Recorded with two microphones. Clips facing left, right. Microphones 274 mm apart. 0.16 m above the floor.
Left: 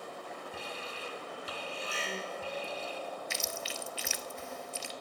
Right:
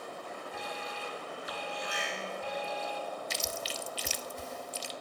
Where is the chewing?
40° right (ahead or behind), 0.7 m.